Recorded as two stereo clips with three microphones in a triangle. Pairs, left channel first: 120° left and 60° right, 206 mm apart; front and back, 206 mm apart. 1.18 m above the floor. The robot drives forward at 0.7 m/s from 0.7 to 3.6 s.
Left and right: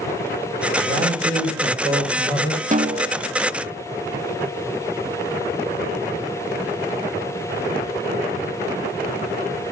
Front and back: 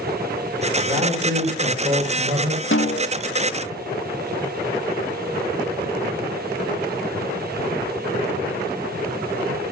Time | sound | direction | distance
0.8 | a man speaking | 105° right | 4.5 m
2.7 | a snare drum | 10° right | 1.7 m